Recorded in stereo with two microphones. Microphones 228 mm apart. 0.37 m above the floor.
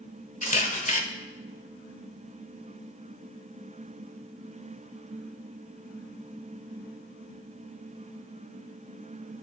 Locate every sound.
0.4 s a camera shutter: 35° left (ahead or behind), 0.9 m